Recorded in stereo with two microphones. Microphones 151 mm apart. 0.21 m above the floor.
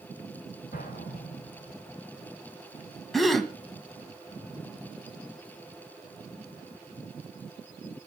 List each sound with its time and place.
0.7 s an explosion: 80° left, 8 m
3.1 s a gasp: centre (ahead or behind), 1.4 m